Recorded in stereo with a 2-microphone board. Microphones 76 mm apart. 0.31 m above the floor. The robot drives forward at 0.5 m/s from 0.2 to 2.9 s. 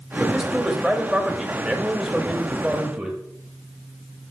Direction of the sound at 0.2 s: 5° right (ahead or behind).